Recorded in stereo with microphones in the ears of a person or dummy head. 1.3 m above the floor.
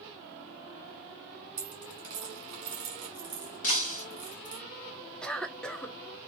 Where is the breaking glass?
50° left (ahead or behind), 0.8 m.